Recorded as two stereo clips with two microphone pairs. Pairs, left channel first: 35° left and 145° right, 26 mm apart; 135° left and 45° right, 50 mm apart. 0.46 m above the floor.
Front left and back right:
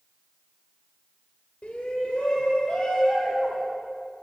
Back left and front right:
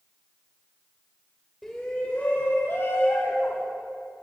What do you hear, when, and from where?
1.6 s a shout: 50° left, 1.6 m; by 3.6 s 100° left, 3 m